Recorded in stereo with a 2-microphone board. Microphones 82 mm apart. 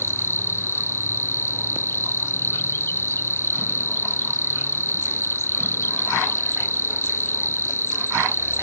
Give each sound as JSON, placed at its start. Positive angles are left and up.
{"t": 0.0, "sound": "an insect", "side_deg": 35}